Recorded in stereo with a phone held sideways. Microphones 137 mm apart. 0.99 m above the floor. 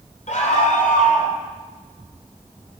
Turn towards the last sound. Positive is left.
turn(degrees=70)  # may be behind; listen again after turning